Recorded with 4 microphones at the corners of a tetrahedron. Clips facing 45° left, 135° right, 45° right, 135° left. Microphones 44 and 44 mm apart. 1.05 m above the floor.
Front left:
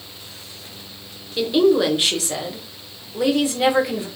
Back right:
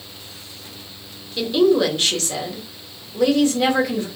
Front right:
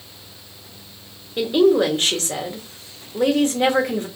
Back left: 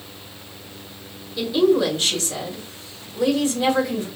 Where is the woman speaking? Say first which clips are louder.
Even, front right 2 dB; 30° right, 1.0 m.